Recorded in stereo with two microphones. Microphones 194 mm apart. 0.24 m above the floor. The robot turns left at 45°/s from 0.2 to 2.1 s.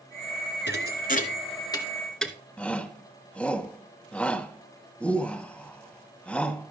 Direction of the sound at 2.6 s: 5° left (ahead or behind).